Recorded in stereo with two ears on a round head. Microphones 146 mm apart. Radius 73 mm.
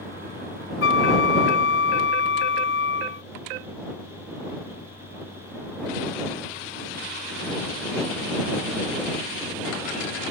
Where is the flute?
75° left (ahead or behind).